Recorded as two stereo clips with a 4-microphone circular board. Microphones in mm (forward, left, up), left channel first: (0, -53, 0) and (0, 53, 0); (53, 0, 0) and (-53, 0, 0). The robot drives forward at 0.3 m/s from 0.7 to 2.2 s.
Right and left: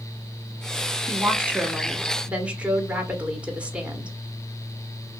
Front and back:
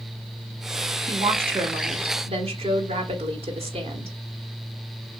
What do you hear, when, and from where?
1.1 s a woman speaking: 160° left, 1.0 m; by 4.2 s 165° left, 1.3 m